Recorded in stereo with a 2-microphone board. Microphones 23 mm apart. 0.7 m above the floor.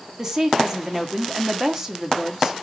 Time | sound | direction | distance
0.2 | a woman speaking | 20° right (ahead or behind) | 1.5 m